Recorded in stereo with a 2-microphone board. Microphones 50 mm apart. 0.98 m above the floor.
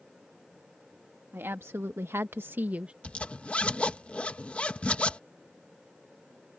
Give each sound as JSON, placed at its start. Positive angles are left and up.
{"t": 1.3, "sound": "a woman speaking", "side_deg": -55}
{"t": 3.0, "sound": "a zipper", "side_deg": 25}